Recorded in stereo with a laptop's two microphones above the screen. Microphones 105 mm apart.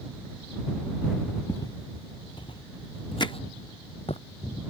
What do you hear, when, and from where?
1.5 s footsteps: 35° left (ahead or behind); by 4.2 s 70° left (ahead or behind)
3.2 s hammering: 45° left (ahead or behind)